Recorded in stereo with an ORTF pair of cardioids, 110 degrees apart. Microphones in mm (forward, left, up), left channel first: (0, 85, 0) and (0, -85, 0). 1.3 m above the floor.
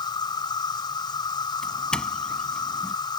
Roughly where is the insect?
Ahead left.